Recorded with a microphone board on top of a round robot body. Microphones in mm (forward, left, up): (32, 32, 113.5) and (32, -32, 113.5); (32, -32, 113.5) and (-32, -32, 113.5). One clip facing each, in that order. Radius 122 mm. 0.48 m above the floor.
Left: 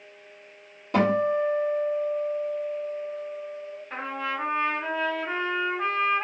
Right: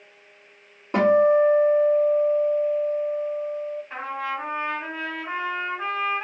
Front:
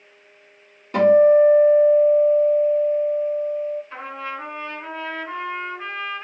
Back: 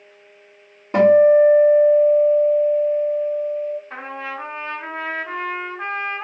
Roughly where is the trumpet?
Behind.